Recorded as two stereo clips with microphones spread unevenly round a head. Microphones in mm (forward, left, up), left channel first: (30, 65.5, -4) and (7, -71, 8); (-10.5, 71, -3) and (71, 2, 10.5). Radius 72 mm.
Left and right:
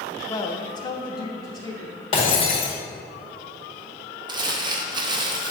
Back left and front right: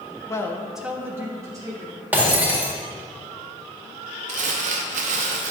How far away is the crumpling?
About 0.7 m.